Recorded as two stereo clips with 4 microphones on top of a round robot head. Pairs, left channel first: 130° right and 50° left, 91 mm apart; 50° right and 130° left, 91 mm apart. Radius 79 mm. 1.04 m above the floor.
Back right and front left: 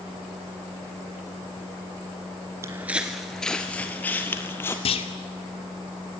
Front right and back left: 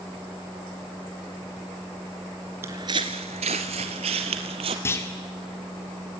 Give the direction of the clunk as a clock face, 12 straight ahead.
4 o'clock.